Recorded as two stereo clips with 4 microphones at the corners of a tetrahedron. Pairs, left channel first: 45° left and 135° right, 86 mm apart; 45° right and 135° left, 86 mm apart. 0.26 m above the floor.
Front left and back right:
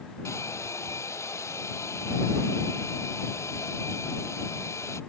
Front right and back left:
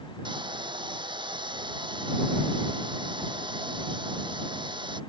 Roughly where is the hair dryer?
Left.